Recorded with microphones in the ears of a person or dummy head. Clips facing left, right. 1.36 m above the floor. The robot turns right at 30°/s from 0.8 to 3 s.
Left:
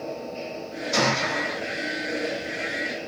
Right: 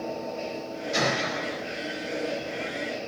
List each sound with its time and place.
0.9 s a gunshot: 70° left (ahead or behind), 6 m; by 1.6 s 50° left (ahead or behind), 6 m